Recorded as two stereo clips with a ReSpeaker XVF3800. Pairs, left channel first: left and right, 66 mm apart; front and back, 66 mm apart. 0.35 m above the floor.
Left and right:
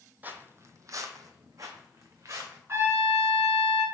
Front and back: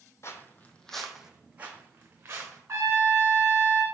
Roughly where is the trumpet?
Behind right.